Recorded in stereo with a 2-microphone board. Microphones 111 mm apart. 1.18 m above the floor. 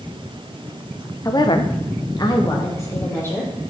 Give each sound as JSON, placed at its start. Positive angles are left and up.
{"t": 1.2, "sound": "a woman speaking", "side_deg": 30, "distance_m": 0.9}